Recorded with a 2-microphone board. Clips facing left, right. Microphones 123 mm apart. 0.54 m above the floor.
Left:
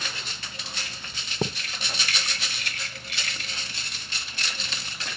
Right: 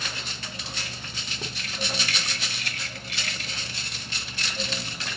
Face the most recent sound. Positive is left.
turn(degrees=60)  # may be behind; listen again after turning